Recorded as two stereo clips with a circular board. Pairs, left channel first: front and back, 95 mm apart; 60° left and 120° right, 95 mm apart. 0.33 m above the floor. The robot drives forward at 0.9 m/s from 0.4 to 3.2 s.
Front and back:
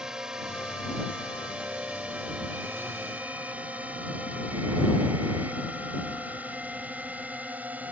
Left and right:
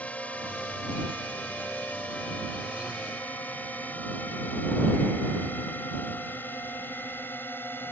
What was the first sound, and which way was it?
A drone, 110° left.